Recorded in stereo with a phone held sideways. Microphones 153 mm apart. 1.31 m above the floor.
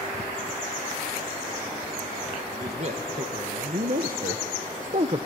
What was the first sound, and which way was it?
A man speaking, 45° right (ahead or behind).